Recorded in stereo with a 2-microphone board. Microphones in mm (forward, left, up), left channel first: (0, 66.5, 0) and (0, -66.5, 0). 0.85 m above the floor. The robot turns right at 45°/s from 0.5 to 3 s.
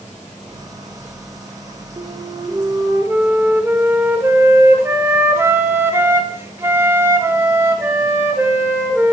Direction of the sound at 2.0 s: 70° right.